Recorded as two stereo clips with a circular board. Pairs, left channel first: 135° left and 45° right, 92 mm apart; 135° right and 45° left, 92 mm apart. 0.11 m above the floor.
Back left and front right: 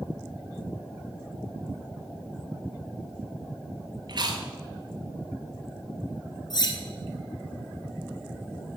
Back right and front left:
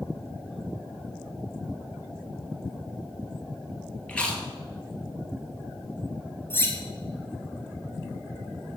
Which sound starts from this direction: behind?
Cutlery clinking, at 6.5 s.